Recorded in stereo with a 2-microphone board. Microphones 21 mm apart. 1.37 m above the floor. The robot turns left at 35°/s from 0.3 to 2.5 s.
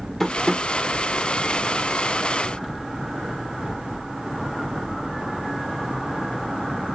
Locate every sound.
0.2 s tapping: 15° left (ahead or behind), 0.6 m; by 0.6 s 20° left (ahead or behind), 0.6 m